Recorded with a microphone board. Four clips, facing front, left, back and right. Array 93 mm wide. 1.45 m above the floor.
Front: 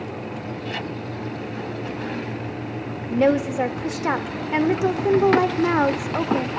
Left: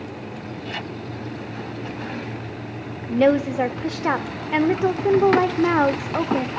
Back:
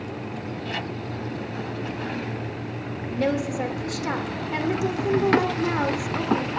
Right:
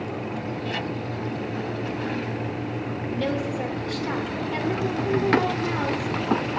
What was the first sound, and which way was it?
A woman speaking, 60° left.